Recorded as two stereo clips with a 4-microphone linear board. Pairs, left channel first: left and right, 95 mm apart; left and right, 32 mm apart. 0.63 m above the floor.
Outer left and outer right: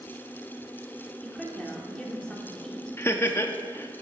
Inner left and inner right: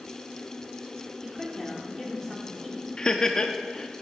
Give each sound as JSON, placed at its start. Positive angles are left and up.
{"t": 1.2, "sound": "a woman speaking", "side_deg": 10, "distance_m": 2.0}
{"t": 3.0, "sound": "laughter", "side_deg": 25, "distance_m": 0.6}